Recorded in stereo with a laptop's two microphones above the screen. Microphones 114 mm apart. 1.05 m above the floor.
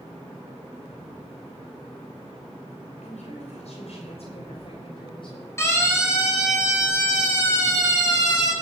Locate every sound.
3.0 s a woman speaking: 80° left, 5 m; by 5.5 s 45° left (ahead or behind), 6.5 m
5.6 s a siren: 25° left (ahead or behind), 7.5 m; by 8.5 s 35° left (ahead or behind), 9 m